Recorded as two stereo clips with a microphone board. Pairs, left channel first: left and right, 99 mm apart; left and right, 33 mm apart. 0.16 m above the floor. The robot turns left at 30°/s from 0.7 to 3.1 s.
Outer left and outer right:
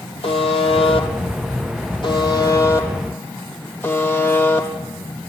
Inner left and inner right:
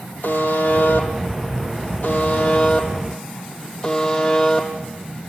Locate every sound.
0.2 s a buzzer: 95° left, 4 m; by 4.7 s 20° left, 4 m